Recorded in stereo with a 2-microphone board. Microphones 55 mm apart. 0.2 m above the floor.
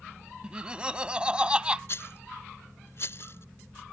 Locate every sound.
0.4 s laughter: 20° right (ahead or behind)
1.9 s a rattle: 50° left (ahead or behind)